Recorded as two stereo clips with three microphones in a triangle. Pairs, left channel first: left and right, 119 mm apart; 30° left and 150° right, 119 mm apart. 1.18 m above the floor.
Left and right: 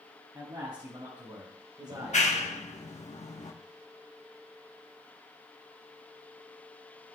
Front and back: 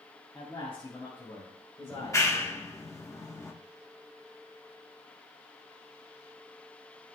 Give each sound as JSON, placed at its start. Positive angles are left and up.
{"t": 0.3, "sound": "a man speaking", "azimuth_deg": -35, "distance_m": 5.0}
{"t": 1.9, "sound": "a clap", "azimuth_deg": 95, "distance_m": 1.2}